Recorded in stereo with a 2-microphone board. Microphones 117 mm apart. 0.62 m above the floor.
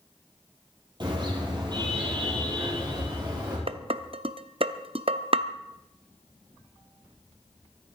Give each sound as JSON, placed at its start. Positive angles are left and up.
{"t": 1.0, "sound": "a car horn", "side_deg": -40, "distance_m": 6.0}
{"t": 3.7, "sound": "dishes clattering", "side_deg": -50, "distance_m": 0.6}